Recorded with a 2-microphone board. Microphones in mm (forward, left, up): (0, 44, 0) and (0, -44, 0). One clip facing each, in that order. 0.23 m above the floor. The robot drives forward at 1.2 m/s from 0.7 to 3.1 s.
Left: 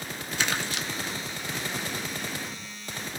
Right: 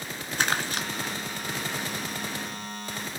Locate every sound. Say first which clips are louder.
0.4 s crumpling: right 3 dB; 45° right (ahead or behind), 1.3 m; by 0.9 s 40° right (ahead or behind), 1.4 m